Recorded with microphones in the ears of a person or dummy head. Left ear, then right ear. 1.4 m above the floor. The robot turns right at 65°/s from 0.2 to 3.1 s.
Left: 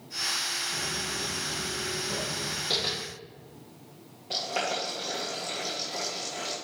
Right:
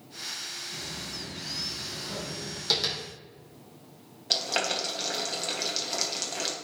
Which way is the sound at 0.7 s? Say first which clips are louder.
Left 5 dB; 25° left (ahead or behind).